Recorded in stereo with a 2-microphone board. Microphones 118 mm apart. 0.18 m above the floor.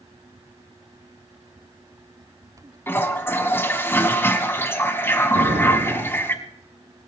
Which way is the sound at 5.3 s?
65° right (ahead or behind).